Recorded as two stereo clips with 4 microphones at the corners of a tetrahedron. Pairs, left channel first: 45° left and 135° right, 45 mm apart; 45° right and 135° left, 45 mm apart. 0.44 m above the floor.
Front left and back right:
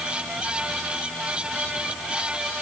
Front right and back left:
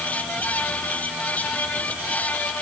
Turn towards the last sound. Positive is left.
No sound to turn to.